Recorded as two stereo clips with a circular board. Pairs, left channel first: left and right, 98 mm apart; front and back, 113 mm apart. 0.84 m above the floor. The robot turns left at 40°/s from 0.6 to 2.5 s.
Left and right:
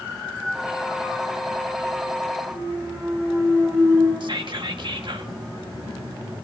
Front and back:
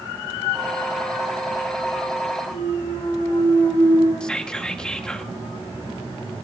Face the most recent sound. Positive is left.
turn(degrees=-80)